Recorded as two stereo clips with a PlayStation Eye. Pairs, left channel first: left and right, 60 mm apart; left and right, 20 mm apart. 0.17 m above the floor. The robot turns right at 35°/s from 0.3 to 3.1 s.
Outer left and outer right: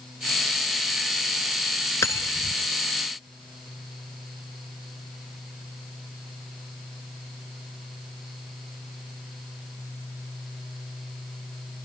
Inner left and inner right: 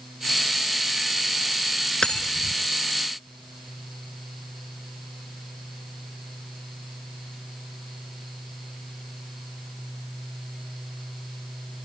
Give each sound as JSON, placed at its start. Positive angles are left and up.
{"t": 2.0, "sound": "cutlery clinking", "side_deg": 50, "distance_m": 1.2}